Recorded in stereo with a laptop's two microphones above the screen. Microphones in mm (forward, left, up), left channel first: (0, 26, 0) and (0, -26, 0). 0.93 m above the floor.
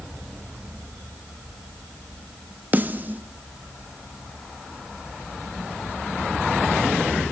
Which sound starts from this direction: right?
A snare drum, at 2.7 s.